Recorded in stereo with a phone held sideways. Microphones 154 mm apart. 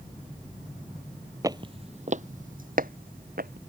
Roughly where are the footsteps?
Right.